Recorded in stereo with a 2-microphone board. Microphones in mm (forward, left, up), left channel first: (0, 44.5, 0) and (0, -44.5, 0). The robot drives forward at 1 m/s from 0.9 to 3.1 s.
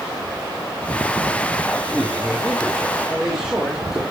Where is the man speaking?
5° right (ahead or behind), 2.5 m.